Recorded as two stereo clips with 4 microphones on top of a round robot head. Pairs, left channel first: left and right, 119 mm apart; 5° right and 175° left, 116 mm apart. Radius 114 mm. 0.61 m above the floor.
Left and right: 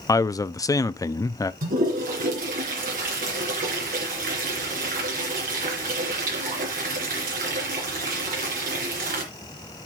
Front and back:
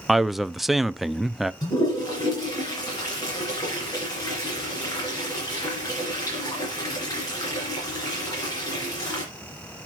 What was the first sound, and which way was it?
A man speaking, 90° left.